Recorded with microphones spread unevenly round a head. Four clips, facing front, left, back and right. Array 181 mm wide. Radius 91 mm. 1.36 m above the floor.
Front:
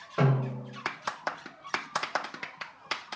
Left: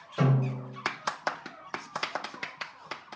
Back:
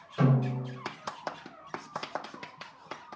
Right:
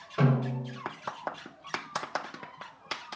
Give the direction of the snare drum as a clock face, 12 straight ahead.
12 o'clock.